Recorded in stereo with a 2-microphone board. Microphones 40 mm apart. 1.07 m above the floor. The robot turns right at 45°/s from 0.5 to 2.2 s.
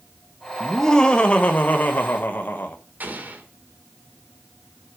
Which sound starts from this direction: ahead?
Laughter, at 0.6 s.